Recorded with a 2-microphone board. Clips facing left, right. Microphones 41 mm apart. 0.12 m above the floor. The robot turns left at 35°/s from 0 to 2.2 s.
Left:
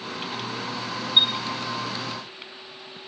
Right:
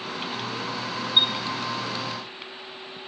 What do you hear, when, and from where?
1.2 s a chime: 15° left (ahead or behind), 0.9 m; by 1.3 s 10° left (ahead or behind), 0.9 m